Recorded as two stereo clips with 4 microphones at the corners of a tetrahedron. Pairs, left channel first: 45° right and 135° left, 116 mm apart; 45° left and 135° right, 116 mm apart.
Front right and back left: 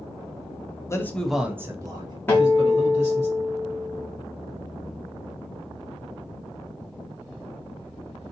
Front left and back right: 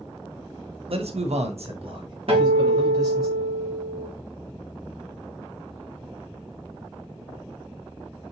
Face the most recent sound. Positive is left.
turn(degrees=-115)